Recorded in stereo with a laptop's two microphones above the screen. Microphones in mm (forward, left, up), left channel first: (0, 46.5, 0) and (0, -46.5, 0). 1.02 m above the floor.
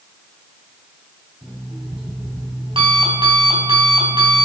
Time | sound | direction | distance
1.4 | an alarm clock | 65° right (ahead or behind) | 5 m